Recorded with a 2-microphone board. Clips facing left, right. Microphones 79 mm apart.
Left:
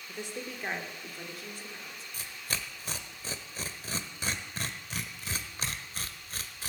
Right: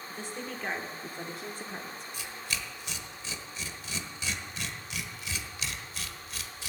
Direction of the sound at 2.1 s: 40° left (ahead or behind).